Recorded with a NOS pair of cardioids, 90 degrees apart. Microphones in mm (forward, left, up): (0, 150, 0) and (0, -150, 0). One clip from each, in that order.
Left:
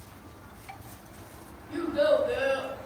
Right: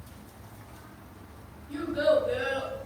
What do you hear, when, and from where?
1.7 s a child speaking: 60° left, 1.5 m